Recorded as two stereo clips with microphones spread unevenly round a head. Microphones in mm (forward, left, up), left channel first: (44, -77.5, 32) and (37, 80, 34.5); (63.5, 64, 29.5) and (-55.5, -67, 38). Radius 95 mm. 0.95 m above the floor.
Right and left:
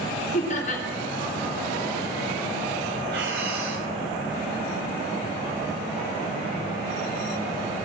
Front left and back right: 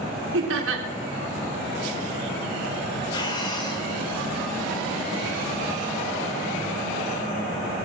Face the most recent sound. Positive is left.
turn(degrees=115)